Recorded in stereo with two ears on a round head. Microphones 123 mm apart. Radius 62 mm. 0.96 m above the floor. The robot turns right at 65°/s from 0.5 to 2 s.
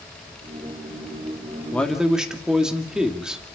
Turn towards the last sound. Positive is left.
turn(degrees=-5)  # may be behind; listen again after turning